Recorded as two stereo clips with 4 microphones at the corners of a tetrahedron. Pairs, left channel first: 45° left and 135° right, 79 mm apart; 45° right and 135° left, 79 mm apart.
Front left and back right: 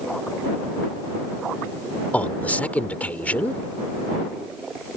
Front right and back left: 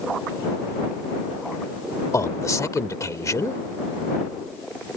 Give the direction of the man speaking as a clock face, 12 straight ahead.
1 o'clock.